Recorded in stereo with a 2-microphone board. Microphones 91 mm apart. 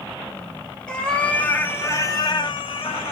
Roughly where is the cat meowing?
Centre.